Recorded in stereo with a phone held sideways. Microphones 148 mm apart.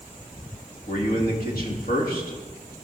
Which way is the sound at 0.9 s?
80° left.